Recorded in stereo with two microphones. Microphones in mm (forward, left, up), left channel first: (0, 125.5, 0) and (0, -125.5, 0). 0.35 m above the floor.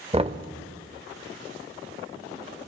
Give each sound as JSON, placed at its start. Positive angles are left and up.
{"t": 0.1, "sound": "knocking", "side_deg": -25, "distance_m": 0.6}